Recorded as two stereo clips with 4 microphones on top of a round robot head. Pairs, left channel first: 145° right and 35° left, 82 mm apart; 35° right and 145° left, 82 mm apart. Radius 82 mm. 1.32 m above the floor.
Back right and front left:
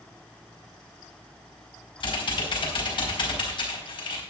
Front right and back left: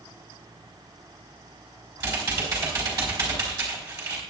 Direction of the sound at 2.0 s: 165° right.